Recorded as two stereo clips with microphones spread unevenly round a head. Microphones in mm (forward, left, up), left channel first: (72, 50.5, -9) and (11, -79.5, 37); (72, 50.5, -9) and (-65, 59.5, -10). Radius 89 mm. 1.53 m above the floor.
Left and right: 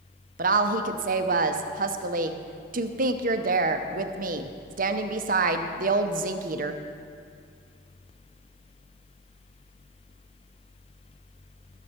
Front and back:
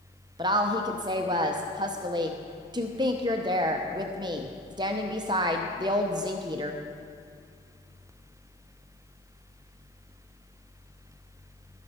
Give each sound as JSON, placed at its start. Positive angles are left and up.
{"t": 0.4, "sound": "a woman speaking", "azimuth_deg": -120, "distance_m": 0.7}